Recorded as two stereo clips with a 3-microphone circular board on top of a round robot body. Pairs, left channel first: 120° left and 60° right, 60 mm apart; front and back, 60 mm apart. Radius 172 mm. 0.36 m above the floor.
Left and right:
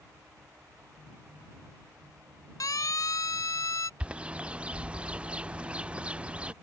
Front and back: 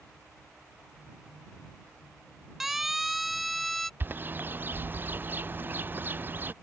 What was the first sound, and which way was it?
A siren, 95° left.